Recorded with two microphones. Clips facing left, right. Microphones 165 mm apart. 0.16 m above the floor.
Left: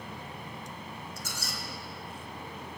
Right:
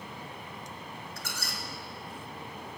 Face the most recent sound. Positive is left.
turn(degrees=-65)  # may be behind; listen again after turning